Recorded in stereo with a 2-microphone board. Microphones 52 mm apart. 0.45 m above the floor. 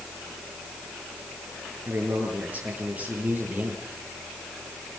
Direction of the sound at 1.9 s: 40° right (ahead or behind).